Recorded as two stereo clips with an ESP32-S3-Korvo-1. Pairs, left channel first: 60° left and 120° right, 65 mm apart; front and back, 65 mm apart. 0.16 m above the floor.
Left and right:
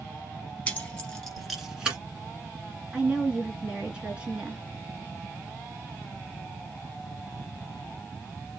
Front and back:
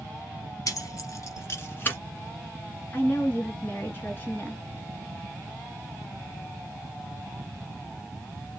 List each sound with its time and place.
0.7 s keys jangling: 10° right, 1.9 m; by 2.0 s 55° right, 1.4 m
2.9 s a woman speaking: 50° right, 1.6 m